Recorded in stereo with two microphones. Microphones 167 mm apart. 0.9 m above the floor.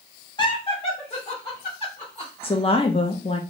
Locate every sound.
0.4 s laughter: 25° left (ahead or behind), 0.7 m; by 2.3 s 40° left (ahead or behind), 2 m
2.4 s a woman speaking: 35° left (ahead or behind), 0.5 m